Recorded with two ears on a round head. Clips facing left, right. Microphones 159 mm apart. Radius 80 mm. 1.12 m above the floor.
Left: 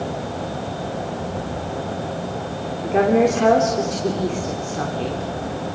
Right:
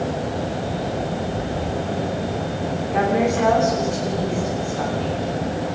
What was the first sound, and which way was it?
A woman speaking, 45° left (ahead or behind).